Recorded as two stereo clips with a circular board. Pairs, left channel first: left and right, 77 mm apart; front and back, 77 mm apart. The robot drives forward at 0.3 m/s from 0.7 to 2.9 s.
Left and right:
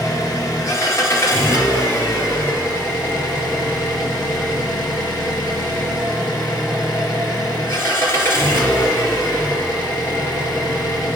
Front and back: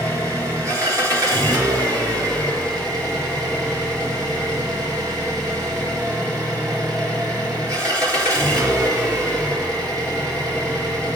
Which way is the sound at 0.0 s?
135° left.